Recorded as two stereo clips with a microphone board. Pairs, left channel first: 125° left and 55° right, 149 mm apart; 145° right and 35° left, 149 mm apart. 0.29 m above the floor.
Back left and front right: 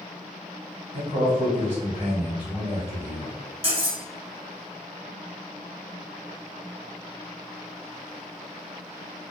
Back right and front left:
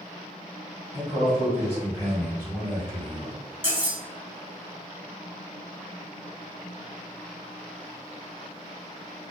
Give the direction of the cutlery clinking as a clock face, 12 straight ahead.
12 o'clock.